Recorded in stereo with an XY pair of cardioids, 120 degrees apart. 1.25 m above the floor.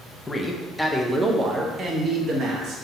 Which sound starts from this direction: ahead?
A man speaking, at 0.3 s.